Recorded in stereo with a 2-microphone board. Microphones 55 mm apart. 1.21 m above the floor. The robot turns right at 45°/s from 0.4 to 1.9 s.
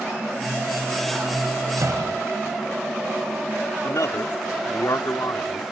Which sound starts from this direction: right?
A door slam, at 1.8 s.